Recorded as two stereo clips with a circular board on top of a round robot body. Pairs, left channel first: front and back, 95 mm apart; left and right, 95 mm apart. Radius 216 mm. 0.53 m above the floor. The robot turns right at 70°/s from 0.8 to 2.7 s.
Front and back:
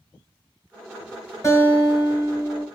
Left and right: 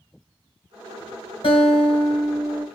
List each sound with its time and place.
1.4 s a guitar: 60° left, 1.4 m; by 2.6 s 145° left, 1.4 m